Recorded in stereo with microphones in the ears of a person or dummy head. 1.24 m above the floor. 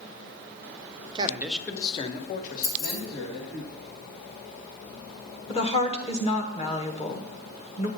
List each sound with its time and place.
1.1 s a man speaking: 25° right (ahead or behind), 0.7 m; by 3.6 s 60° left (ahead or behind), 2 m
2.6 s keys jangling: 35° left (ahead or behind), 1.2 m
5.5 s a woman speaking: 30° left (ahead or behind), 1.3 m